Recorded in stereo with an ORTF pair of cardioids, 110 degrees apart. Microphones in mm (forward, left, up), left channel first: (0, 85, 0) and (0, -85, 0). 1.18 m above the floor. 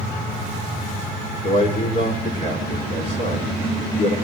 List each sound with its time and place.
1.4 s a man speaking: 45° left, 3.5 m